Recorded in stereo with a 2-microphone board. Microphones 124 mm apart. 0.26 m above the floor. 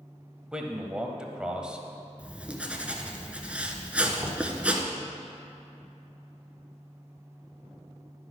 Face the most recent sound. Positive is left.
turn(degrees=-20)  # may be behind; listen again after turning